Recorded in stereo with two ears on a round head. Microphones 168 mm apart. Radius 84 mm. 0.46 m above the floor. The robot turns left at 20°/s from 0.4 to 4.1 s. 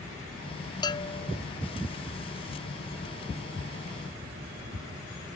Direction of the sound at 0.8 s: 25° left (ahead or behind).